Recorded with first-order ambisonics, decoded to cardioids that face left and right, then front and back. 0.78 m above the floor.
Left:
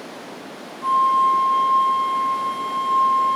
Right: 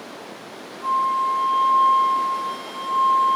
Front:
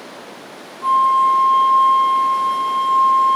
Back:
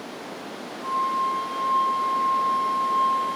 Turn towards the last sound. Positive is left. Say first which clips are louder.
# left 4 dB, front 11 dB
turn(degrees=20)